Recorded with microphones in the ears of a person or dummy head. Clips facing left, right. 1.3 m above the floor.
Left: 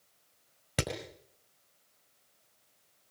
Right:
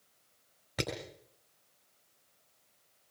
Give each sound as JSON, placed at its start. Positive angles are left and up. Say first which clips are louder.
{"t": 0.8, "sound": "hammering", "louder": "left 2 dB", "side_deg": 45, "distance_m": 5.0}